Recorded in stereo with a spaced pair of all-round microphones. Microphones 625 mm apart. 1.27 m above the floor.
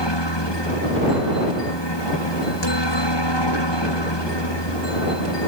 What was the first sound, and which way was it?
A helicopter, 40° left (ahead or behind).